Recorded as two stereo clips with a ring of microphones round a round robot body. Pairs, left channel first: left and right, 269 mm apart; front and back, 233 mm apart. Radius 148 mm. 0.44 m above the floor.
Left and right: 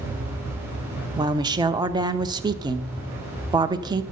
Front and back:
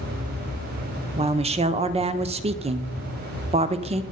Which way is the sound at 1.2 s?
150° right.